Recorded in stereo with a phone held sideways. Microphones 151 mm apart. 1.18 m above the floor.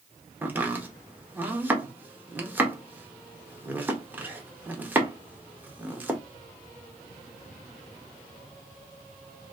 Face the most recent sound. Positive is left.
turn(degrees=-10)  # may be behind; listen again after turning